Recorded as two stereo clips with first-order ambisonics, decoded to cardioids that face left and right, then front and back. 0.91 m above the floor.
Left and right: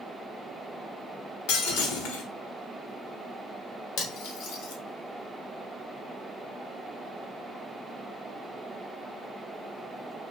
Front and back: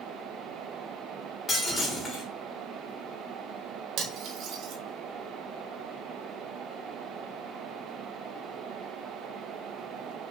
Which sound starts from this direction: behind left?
Cutlery clinking, at 4.0 s.